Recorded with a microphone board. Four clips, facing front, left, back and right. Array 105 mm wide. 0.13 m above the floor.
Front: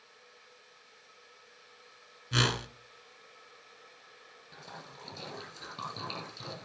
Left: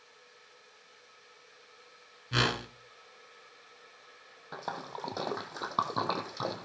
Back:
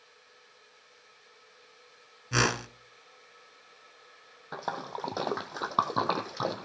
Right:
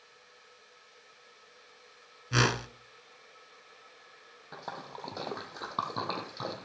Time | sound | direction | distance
2.3 | a whoosh | 155° right | 1.3 m
4.5 | a splash | 170° left | 1.6 m